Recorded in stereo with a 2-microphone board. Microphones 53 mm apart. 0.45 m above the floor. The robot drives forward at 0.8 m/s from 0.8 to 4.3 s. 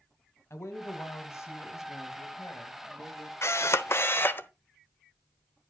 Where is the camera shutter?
60° left (ahead or behind), 0.8 m; by 4.5 s 45° left (ahead or behind), 1.0 m.